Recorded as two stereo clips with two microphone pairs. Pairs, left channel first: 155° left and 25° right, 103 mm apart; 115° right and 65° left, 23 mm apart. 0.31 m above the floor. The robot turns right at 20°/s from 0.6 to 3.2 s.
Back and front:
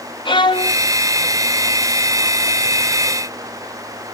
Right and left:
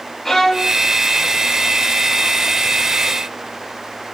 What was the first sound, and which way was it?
A violin, 175° left.